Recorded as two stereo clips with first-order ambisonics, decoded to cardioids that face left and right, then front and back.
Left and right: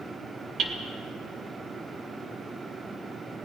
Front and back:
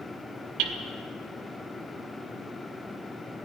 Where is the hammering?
150° right, 2 m.